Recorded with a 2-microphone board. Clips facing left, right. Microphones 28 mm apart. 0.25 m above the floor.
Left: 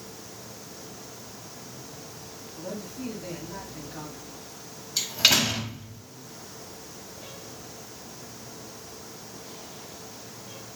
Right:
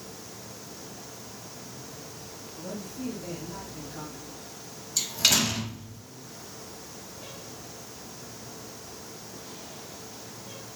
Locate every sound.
2.5 s a man speaking: 15° left (ahead or behind), 1.3 m
5.0 s a door slam: 25° left (ahead or behind), 0.7 m